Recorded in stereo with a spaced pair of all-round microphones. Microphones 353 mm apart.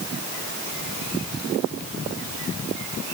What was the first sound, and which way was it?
Only background noise.